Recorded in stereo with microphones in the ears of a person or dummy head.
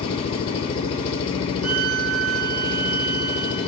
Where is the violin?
75° right (ahead or behind), 0.8 m.